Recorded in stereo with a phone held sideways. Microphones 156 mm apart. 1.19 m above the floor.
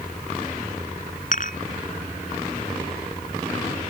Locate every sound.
1.3 s dishes clattering: 60° left (ahead or behind)